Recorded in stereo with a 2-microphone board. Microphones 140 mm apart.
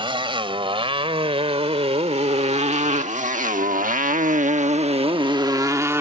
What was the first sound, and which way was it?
A motorcycle, 35° right (ahead or behind).